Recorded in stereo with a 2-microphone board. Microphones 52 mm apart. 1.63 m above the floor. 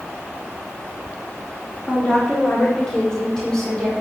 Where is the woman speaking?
15° left (ahead or behind), 5 m.